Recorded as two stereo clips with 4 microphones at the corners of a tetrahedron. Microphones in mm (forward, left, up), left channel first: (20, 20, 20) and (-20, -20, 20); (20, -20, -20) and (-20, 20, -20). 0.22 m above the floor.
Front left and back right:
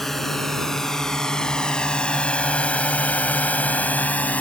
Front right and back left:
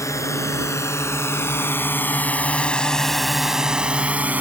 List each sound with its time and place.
0.0 s a drone: 40° right; by 4.4 s 95° left